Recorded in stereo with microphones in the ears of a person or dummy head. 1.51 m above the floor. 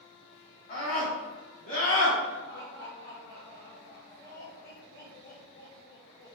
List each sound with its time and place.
0.7 s a scream: 45° left (ahead or behind), 3.5 m
2.5 s laughter: 55° left (ahead or behind), 2 m